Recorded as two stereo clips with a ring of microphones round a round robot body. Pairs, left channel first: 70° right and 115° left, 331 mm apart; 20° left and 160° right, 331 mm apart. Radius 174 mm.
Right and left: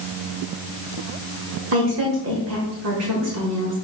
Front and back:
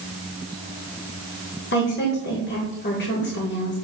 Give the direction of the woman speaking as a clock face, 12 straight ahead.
9 o'clock.